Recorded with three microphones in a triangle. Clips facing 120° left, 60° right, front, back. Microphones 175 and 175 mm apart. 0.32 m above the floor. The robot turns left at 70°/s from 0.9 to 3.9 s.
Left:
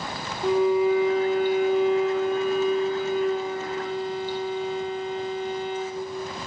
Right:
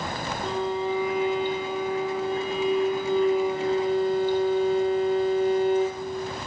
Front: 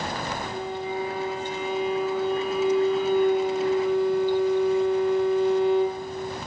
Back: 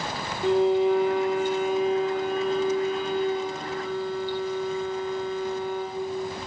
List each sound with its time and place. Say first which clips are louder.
0.4 s a violin: left 8 dB, back 11 dB; 165° right, 2 m; by 6.0 s 15° right, 2 m